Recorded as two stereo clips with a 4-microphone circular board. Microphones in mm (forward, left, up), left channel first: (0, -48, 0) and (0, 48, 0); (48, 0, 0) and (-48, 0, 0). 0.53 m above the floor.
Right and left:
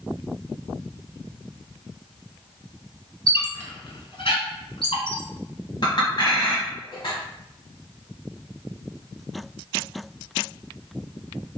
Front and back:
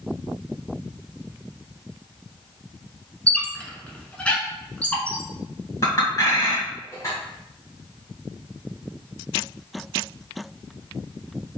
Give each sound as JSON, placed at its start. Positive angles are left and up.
{"t": 3.3, "sound": "a squeak", "azimuth_deg": -75, "distance_m": 1.0}
{"t": 5.8, "sound": "a clink", "azimuth_deg": -55, "distance_m": 1.7}